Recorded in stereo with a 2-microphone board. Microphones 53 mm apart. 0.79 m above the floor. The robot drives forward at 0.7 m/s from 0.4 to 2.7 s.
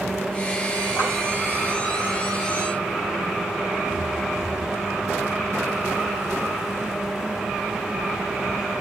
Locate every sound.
1.0 s a clap: 85° left, 3.5 m